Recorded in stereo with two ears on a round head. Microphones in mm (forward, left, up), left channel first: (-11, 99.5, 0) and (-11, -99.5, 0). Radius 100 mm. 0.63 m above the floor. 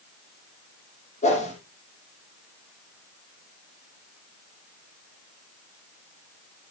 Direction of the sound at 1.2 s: 30° left (ahead or behind).